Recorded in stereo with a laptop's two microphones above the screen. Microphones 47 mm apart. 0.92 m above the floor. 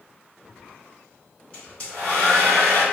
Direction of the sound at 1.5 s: 25° left (ahead or behind).